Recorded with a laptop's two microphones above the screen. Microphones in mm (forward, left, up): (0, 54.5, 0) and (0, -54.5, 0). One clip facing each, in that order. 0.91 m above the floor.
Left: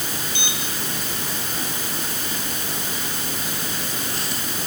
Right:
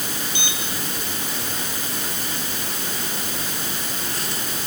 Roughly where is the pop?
No pop in this recording.